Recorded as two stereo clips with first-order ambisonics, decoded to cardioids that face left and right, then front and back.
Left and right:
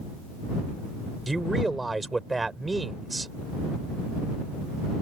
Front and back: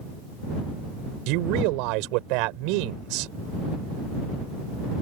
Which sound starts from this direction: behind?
A man speaking, at 1.3 s.